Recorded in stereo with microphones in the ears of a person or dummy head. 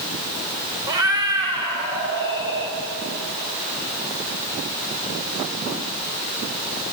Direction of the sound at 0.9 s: 20° right (ahead or behind).